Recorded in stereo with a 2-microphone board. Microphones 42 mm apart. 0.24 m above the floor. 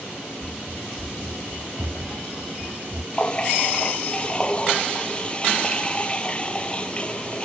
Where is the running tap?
25° left (ahead or behind).